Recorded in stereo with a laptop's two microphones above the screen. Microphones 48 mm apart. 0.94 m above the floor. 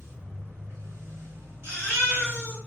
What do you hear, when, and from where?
0.0 s a machine running: 70° right (ahead or behind), 1.1 m
1.6 s a baby crying: 60° right (ahead or behind), 1.6 m